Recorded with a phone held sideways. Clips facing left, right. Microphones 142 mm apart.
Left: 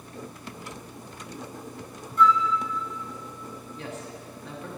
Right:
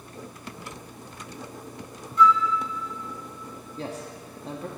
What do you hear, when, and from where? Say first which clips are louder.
2.2 s a flute: right 1 dB; 50° left (ahead or behind), 1.3 m
3.8 s a man speaking: right 4 dB; 35° right (ahead or behind), 1.1 m